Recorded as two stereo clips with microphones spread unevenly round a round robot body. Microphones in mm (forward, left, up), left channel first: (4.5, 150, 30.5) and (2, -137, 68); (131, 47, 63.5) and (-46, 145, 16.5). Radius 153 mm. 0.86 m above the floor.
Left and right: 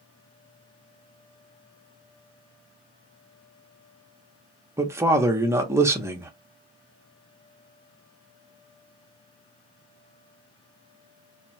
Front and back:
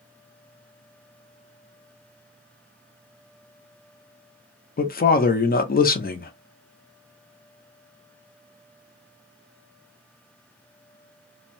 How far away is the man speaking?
About 0.7 m.